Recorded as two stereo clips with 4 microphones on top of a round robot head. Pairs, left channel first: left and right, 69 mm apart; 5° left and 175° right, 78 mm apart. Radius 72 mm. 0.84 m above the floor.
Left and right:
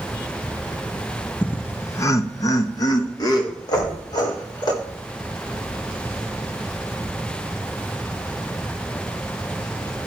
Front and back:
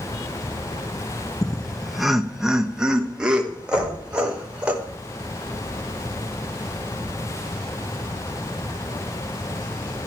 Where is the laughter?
70° left, 0.6 m; by 4.7 s 105° left, 2 m.